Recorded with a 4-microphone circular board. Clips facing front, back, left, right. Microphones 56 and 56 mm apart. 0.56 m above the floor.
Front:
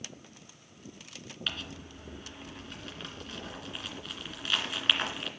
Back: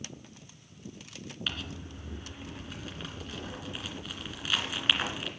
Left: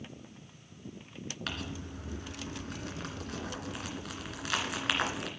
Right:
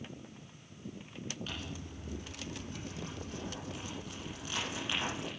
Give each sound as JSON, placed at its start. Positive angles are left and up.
{"t": 1.5, "sound": "crumpling", "azimuth_deg": 95, "distance_m": 2.5}